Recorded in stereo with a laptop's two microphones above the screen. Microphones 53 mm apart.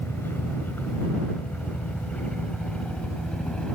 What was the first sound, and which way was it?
A helicopter, 40° left (ahead or behind).